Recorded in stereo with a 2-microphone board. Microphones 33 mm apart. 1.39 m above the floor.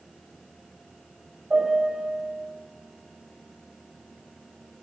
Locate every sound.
1.5 s a piano: 35° right (ahead or behind), 6 m